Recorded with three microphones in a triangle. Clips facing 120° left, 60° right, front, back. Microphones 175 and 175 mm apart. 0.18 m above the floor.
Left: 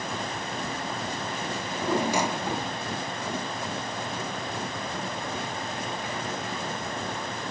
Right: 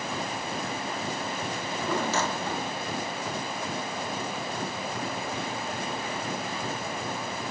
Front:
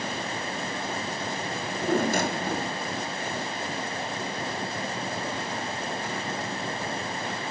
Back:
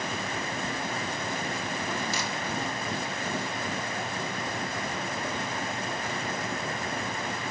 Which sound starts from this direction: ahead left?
A drawer, at 1.6 s.